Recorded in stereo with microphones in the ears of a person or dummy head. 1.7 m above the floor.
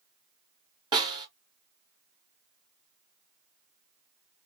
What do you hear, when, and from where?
0.9 s a snare drum: 25° right (ahead or behind), 1.3 m